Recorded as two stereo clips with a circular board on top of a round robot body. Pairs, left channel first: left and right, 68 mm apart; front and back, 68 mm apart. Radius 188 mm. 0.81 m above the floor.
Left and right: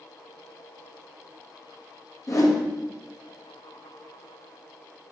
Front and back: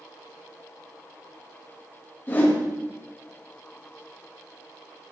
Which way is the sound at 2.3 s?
60° left.